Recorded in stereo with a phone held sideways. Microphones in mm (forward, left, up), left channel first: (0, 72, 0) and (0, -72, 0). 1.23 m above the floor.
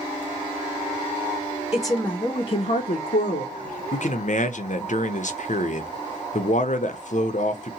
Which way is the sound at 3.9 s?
60° left (ahead or behind).